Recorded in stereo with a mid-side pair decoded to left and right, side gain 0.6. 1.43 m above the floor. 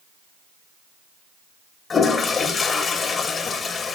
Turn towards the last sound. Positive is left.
turn(degrees=30)